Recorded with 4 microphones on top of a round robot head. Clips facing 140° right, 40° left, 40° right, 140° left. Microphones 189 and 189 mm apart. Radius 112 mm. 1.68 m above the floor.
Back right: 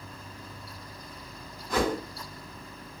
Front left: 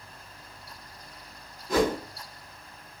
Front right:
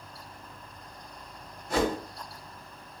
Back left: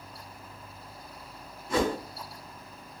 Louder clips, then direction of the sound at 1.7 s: Front left 3 dB, even; 15° left.